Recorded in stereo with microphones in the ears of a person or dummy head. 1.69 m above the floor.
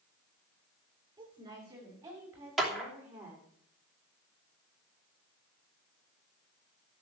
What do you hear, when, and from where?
1.2 s a woman speaking: 20° right (ahead or behind), 6.5 m; by 3.4 s 10° right (ahead or behind), 6 m
2.6 s a clap: centre (ahead or behind), 3 m